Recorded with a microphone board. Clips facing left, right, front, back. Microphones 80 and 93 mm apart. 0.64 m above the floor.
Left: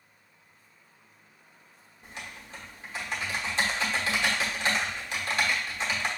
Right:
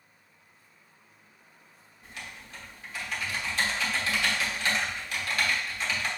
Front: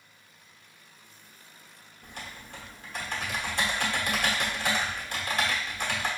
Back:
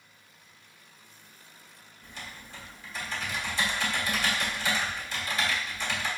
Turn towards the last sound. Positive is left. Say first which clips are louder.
# left 1 dB, front 2 dB
turn(degrees=25)